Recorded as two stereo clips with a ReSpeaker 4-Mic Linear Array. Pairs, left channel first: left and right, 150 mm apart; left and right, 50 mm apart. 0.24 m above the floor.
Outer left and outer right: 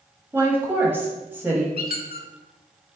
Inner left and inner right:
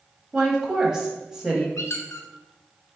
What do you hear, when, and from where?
0.3 s a woman speaking: 15° right (ahead or behind), 0.9 m
1.8 s a squeak: 85° left, 0.5 m